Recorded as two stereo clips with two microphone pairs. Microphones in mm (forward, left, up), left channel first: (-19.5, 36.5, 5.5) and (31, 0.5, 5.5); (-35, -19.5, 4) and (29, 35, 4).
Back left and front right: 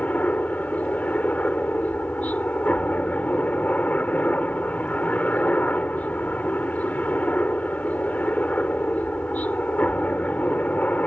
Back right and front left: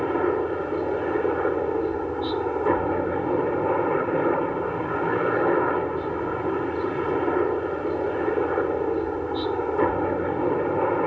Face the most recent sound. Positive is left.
turn(degrees=135)